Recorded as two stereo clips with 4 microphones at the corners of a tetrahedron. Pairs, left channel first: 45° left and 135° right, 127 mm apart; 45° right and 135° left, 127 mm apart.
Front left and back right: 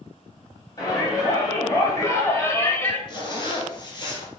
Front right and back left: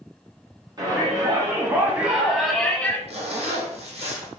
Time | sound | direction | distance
0.8 | a shout | 95° left | 2.0 m
3.1 | a zipper | 100° left | 2.5 m